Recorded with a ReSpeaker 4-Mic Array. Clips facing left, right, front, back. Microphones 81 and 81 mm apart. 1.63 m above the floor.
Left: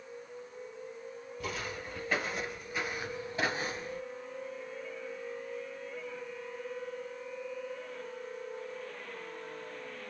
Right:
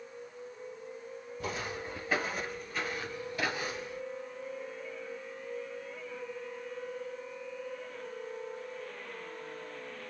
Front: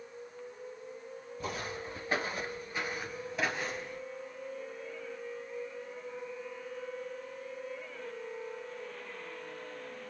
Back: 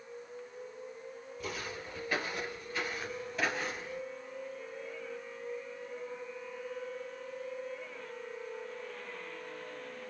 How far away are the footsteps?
About 2 m.